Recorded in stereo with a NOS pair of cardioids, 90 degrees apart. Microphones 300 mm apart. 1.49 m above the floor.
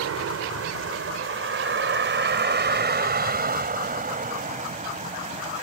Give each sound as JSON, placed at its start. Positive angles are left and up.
{"t": 0.0, "sound": "a vehicle", "azimuth_deg": -55}